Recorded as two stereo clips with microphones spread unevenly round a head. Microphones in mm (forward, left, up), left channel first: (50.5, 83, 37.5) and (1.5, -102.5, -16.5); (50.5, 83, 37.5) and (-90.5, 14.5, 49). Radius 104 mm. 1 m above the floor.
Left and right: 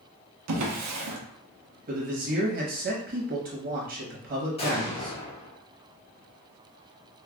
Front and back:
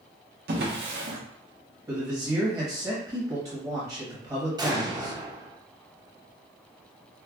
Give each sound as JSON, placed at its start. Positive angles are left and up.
{"t": 0.5, "sound": "a drawer", "azimuth_deg": -120, "distance_m": 0.7}
{"t": 1.9, "sound": "a man speaking", "azimuth_deg": -80, "distance_m": 1.1}
{"t": 4.6, "sound": "an explosion", "azimuth_deg": 145, "distance_m": 1.2}